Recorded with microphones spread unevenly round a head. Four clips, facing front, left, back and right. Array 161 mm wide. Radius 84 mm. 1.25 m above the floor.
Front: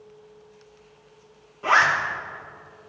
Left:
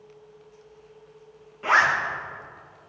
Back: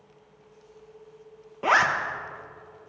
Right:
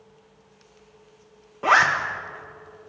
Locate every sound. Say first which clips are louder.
1.6 s a zipper: right 2 dB, front 2 dB; 140° right, 1.1 m